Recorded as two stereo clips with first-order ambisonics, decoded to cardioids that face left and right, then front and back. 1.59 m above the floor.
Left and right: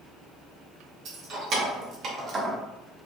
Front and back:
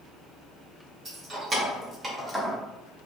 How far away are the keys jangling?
About 1.2 m.